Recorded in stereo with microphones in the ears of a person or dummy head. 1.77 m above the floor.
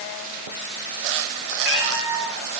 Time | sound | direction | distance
1.6 | a cat meowing | 10° right (ahead or behind) | 9.5 m